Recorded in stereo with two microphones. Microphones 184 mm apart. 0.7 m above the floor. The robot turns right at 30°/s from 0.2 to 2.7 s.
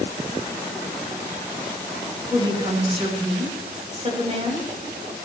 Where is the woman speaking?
20° right (ahead or behind), 4 m; by 4.7 s 35° right (ahead or behind), 4 m.